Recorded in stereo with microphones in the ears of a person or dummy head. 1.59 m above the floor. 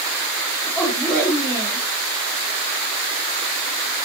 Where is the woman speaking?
Centre (ahead or behind), 2.5 m.